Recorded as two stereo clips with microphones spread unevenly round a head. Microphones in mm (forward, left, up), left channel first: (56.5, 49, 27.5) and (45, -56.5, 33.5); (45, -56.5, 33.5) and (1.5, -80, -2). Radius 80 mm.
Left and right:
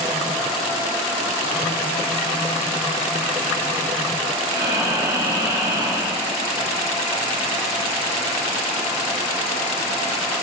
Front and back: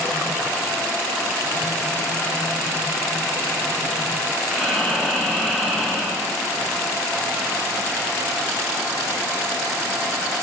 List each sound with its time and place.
4.5 s breathing: 50° right, 4 m